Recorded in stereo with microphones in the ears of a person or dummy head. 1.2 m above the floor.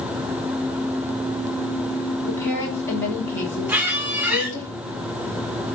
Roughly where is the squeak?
Centre.